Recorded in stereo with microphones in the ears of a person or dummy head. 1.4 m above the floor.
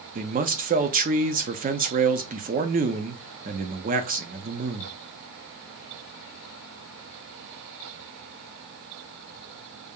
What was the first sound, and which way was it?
A man speaking, 40° right (ahead or behind).